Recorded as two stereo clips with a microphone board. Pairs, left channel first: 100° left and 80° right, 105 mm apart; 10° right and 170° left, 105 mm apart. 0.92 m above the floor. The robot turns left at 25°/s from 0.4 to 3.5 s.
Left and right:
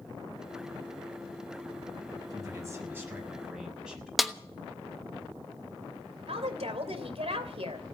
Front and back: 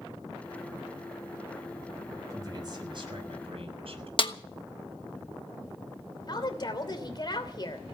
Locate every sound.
2.3 s a man speaking: 130° right, 6.5 m; by 4.1 s 160° right, 6.5 m
4.2 s a snare drum: 10° left, 1.2 m
6.3 s a woman speaking: 60° right, 3 m